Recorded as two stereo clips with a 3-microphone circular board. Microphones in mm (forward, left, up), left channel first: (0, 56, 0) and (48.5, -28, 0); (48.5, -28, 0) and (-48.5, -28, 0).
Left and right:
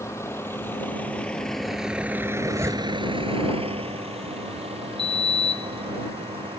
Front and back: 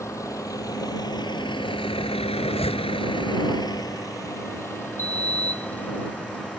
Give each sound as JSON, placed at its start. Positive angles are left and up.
{"t": 0.0, "sound": "a vehicle", "azimuth_deg": 60}
{"t": 2.4, "sound": "a zipper", "azimuth_deg": 5}
{"t": 5.0, "sound": "a sliding door", "azimuth_deg": 125}